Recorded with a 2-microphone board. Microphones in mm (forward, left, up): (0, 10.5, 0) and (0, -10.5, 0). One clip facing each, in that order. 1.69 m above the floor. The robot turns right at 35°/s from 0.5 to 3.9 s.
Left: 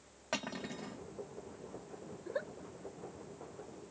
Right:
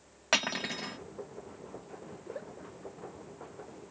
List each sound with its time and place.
0.3 s cutlery clinking: 65° right (ahead or behind); by 1.0 s 60° right (ahead or behind)
2.2 s a giggle: 45° left (ahead or behind); by 2.5 s 35° left (ahead or behind)